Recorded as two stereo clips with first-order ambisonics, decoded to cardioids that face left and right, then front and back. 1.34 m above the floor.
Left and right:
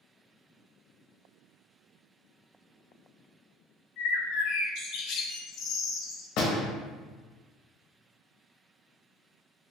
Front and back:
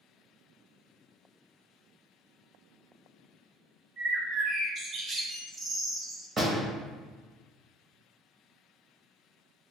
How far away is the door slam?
About 0.7 m.